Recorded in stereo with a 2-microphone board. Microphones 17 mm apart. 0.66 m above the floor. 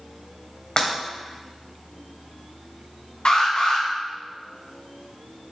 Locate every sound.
0.8 s breaking glass: 40° left (ahead or behind), 1.9 m
3.2 s an alarm: 65° left (ahead or behind), 2.5 m